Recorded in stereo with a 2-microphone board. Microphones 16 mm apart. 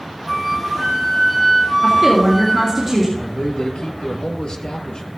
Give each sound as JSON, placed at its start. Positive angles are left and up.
{"t": 0.3, "sound": "a flute", "side_deg": -5, "distance_m": 6.5}
{"t": 1.8, "sound": "a woman speaking", "side_deg": -20, "distance_m": 3.0}
{"t": 3.2, "sound": "a man speaking", "side_deg": 70, "distance_m": 3.0}